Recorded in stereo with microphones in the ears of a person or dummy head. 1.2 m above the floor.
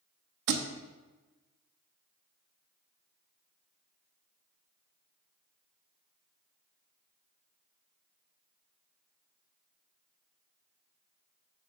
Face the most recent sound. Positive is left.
turn(degrees=-60)  # may be behind; listen again after turning